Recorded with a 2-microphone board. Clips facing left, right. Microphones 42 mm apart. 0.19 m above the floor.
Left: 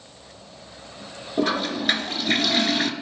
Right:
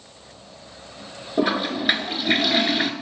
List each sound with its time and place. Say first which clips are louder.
1.4 s a toilet flushing: right 1 dB; 10° right (ahead or behind), 1.0 m